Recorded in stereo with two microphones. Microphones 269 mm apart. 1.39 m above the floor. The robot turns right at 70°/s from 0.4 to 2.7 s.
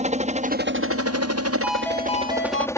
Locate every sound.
0.0 s a helicopter: 25° right (ahead or behind); by 2.8 s 10° left (ahead or behind)
1.6 s a ringtone: 10° right; by 2.7 s 65° left